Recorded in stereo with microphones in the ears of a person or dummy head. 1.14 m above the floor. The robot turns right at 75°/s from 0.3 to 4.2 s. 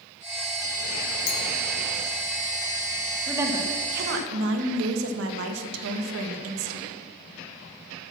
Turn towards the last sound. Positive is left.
turn(degrees=-100)